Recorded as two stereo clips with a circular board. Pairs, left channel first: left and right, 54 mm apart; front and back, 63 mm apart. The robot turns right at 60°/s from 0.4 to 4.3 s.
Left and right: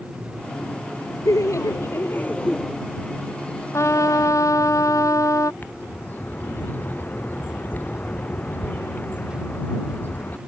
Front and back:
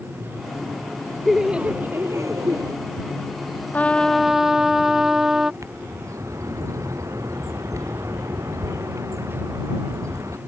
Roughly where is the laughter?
Left.